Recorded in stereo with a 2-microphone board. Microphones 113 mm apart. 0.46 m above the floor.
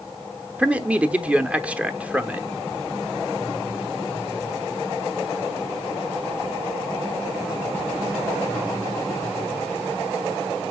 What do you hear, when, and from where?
0.6 s a man speaking: 10° right (ahead or behind), 0.8 m